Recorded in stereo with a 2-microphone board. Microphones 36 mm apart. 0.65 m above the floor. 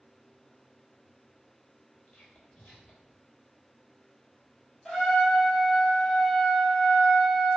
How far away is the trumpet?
About 0.7 m.